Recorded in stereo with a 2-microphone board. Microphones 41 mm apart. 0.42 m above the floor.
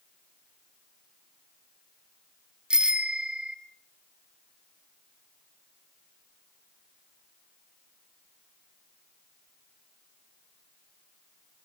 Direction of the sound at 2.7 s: 20° right (ahead or behind).